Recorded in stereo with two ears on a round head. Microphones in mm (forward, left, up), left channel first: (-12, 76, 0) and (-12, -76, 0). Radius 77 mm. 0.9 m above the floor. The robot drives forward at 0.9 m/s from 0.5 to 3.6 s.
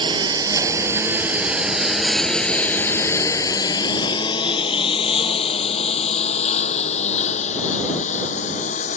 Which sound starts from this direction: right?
A lawn mower, at 0.0 s.